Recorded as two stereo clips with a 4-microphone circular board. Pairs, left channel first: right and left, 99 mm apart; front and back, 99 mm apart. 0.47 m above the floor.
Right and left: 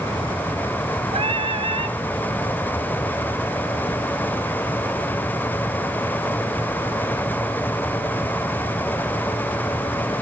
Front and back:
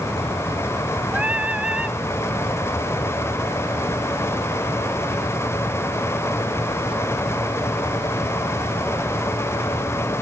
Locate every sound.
1.1 s singing: 105° left, 1.1 m